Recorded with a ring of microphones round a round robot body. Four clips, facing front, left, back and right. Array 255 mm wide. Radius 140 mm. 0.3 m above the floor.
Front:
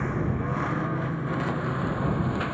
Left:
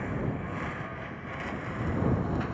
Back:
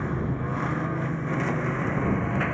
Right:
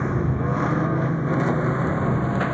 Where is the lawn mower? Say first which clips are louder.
Right 9 dB, front 1 dB; 85° right; by 2.5 s 105° right.